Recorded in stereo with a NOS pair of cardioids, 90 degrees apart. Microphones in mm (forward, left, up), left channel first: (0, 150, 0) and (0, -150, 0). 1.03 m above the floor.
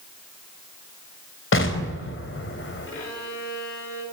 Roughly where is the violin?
Ahead left.